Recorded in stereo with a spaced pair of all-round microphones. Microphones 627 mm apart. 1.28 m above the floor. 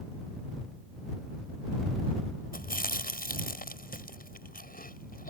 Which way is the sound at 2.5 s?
15° left (ahead or behind).